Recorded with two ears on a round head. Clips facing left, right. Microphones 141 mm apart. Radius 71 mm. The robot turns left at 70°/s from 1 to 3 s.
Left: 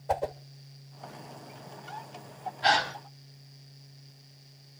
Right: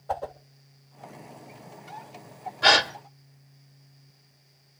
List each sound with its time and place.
0.1 s a whoosh: 15° left (ahead or behind), 1.0 m
2.6 s a gasp: 75° right (ahead or behind), 1.9 m; by 2.9 s 70° right (ahead or behind), 1.9 m